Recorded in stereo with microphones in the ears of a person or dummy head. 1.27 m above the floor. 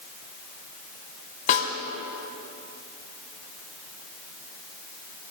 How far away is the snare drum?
About 2.5 m.